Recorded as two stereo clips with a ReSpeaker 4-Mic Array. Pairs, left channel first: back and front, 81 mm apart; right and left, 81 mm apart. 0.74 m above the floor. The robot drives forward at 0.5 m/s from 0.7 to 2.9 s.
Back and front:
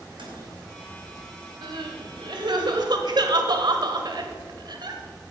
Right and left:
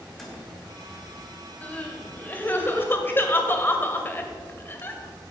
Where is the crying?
20° right, 2 m; by 5.0 s 25° right, 1.4 m.